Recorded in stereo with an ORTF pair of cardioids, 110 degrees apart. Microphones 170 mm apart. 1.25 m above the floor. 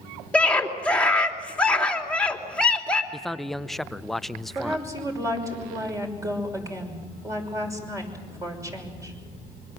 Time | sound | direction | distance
0.3 | a scream | 5° left | 3 m
3.1 | a man speaking | straight ahead | 0.6 m
4.5 | a woman speaking | 20° right | 6 m